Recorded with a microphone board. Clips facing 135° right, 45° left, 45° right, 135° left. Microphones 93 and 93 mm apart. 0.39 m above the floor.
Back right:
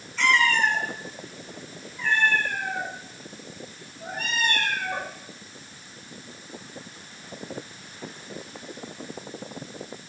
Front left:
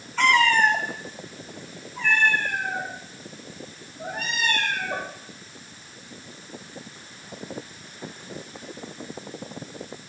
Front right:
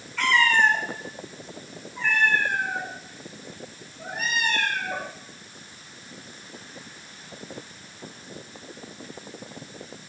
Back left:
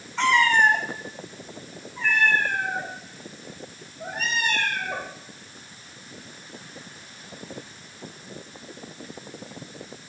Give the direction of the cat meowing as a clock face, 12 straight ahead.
10 o'clock.